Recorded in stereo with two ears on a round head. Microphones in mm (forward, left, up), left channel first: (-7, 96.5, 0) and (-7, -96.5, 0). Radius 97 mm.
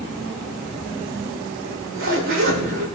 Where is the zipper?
65° right (ahead or behind), 4.5 m.